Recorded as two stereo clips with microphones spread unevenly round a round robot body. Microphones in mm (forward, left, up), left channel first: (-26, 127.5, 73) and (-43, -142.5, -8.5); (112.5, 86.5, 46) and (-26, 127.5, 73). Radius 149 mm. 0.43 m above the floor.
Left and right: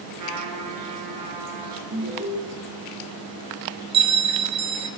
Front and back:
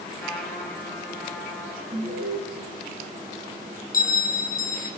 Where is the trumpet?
95° right, 7 m.